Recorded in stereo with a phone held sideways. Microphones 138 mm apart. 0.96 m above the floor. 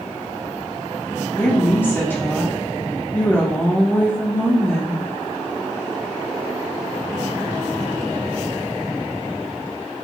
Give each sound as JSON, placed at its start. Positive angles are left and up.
{"t": 1.4, "sound": "a woman speaking", "side_deg": 15, "distance_m": 1.0}